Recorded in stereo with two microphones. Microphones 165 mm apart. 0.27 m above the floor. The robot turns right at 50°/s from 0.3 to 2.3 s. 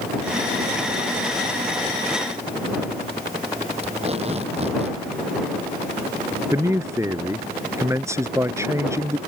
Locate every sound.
3.8 s tape being pulled: 35° right (ahead or behind)
6.5 s a man speaking: 15° right (ahead or behind)